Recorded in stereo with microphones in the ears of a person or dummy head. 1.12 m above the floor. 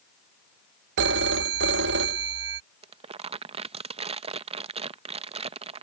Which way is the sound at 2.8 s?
30° right (ahead or behind).